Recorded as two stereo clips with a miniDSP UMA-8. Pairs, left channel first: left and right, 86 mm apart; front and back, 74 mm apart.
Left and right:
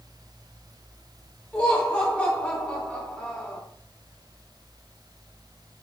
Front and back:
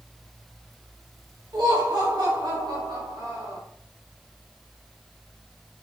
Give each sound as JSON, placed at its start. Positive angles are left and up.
{"t": 1.5, "sound": "laughter", "azimuth_deg": 165, "distance_m": 4.0}